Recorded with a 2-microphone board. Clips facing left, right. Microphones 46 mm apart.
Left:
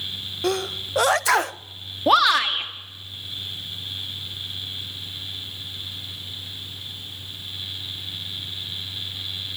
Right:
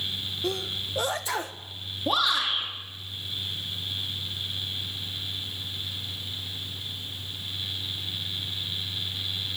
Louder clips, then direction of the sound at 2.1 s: Left 8 dB; 85° left.